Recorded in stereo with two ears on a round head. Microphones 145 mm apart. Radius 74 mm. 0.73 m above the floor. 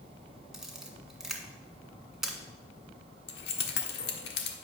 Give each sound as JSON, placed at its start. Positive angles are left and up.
{"t": 0.5, "sound": "a camera shutter", "side_deg": -5, "distance_m": 1.9}
{"t": 3.3, "sound": "keys jangling", "side_deg": 75, "distance_m": 1.5}